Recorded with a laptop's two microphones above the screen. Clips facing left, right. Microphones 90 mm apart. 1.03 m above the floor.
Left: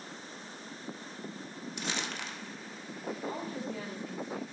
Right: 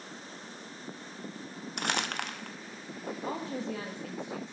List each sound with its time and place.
1.8 s crumpling: 60° right (ahead or behind), 0.7 m
3.2 s a woman speaking: 70° right (ahead or behind), 1.9 m